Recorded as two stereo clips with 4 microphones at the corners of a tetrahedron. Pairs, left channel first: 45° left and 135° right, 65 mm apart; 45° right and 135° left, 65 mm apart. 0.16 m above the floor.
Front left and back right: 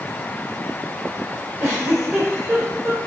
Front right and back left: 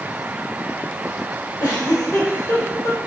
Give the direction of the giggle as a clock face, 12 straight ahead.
3 o'clock.